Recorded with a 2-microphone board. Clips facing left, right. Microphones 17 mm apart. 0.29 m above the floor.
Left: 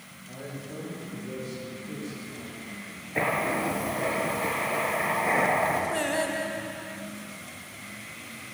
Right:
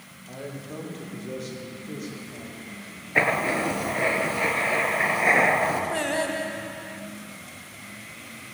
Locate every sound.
0.3 s a man speaking: 65° right (ahead or behind), 10 m; by 3.0 s 70° right (ahead or behind), 9 m
3.1 s writing: 50° right (ahead or behind), 3 m
5.9 s singing: 15° right (ahead or behind), 2.5 m